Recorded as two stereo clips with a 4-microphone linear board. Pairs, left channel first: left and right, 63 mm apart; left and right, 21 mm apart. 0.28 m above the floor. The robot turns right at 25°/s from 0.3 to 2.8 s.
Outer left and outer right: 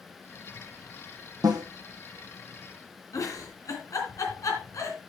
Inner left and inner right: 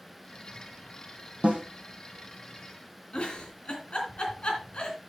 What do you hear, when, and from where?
1.4 s a snare drum: 85° right, 1.9 m; by 1.6 s 90° right, 1.9 m
3.1 s a giggle: 55° left (ahead or behind), 3 m